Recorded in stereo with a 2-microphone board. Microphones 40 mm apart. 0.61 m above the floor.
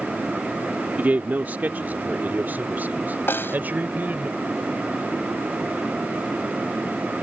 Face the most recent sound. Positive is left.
turn(degrees=70)  # may be behind; listen again after turning